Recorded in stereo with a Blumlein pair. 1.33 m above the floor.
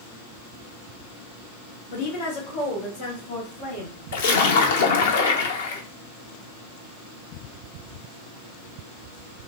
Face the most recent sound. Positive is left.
turn(degrees=60)